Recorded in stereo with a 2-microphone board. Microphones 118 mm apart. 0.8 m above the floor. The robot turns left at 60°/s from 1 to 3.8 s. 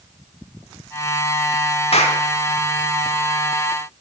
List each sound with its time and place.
1.9 s a clap: 60° left (ahead or behind), 1.6 m; by 2.2 s 75° left (ahead or behind), 1.6 m